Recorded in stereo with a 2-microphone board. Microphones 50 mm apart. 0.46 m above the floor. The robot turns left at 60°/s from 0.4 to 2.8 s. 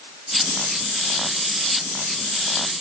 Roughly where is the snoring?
I don't hear snoring.